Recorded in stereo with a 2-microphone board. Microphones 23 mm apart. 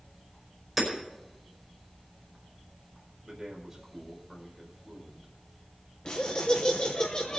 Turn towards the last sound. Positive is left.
turn(degrees=40)  # may be behind; listen again after turning